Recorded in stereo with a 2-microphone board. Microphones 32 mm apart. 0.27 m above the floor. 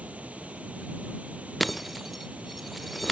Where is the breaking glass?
Centre (ahead or behind).